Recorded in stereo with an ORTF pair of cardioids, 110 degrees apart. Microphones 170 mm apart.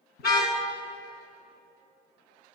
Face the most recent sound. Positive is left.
turn(degrees=70)